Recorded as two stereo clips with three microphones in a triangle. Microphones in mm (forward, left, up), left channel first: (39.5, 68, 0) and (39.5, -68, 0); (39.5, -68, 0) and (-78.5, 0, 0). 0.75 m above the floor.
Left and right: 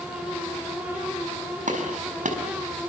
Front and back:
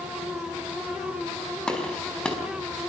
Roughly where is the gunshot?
Behind right.